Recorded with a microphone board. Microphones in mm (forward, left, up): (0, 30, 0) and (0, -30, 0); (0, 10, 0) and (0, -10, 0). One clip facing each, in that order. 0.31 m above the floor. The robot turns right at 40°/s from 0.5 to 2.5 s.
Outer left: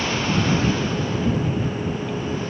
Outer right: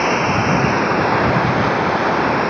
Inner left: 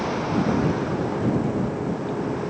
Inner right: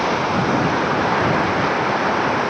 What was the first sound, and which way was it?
Running water, 140° right.